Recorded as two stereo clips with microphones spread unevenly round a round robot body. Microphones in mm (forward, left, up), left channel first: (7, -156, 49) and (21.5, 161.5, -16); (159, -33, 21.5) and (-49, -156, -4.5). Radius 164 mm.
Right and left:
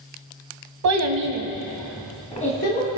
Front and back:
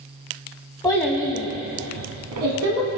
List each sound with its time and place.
0.8 s a child speaking: 110° left, 1.1 m; by 3.0 s 155° right, 1.9 m